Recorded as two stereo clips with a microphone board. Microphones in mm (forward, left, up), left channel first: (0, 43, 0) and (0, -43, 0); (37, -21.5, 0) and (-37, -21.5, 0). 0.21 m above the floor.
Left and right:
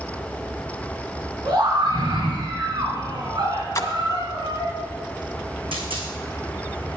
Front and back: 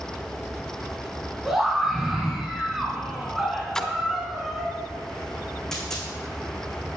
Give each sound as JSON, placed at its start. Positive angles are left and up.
{"t": 1.4, "sound": "a scream", "azimuth_deg": -95, "distance_m": 2.0}
{"t": 3.8, "sound": "a splash", "azimuth_deg": 75, "distance_m": 0.9}
{"t": 5.7, "sound": "a dropped coin", "azimuth_deg": -85, "distance_m": 2.5}